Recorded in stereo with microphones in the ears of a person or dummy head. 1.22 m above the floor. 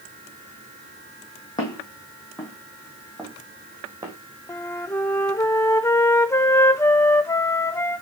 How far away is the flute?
About 0.6 m.